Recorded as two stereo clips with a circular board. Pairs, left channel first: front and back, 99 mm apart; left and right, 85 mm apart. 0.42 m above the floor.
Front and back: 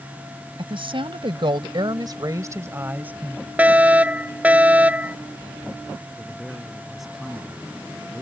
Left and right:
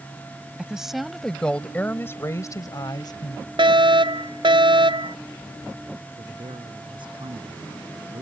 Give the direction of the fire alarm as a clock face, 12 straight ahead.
3 o'clock.